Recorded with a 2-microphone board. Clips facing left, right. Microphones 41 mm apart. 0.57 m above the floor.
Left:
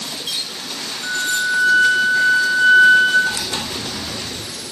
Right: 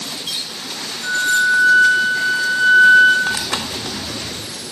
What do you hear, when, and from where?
1.0 s a flute: centre (ahead or behind), 0.7 m
3.3 s tearing paper: 75° right (ahead or behind), 0.6 m